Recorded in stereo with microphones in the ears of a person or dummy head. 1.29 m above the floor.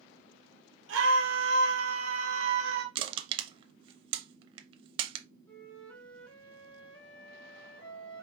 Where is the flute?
10° left (ahead or behind), 1.2 m.